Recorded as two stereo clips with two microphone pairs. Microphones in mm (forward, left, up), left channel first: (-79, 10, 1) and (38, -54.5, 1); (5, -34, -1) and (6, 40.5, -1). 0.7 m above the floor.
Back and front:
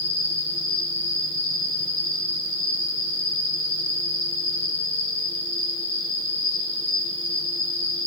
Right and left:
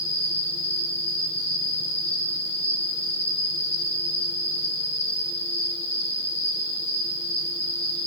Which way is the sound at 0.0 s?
135° left.